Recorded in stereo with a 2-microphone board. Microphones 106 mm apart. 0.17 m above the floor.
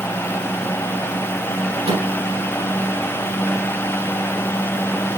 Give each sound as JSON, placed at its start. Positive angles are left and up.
{"t": 1.9, "sound": "a microwave", "side_deg": -65, "distance_m": 4.5}